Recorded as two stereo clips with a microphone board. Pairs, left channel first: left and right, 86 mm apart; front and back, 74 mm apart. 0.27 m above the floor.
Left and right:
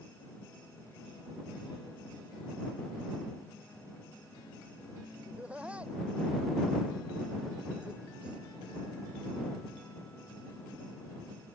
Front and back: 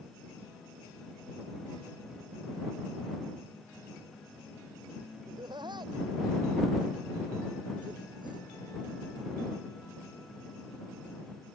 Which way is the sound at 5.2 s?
165° right.